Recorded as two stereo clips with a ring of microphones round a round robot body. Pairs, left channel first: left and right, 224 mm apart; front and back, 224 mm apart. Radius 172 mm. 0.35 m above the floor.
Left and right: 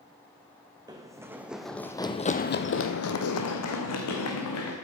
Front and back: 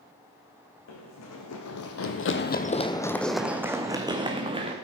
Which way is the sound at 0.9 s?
15° right.